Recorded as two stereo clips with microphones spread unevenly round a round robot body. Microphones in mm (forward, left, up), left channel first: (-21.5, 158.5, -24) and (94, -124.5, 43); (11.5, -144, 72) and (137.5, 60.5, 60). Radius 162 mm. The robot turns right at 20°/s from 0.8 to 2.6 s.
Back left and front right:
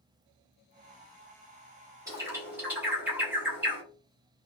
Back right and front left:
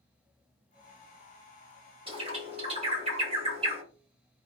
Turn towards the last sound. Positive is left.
turn(degrees=35)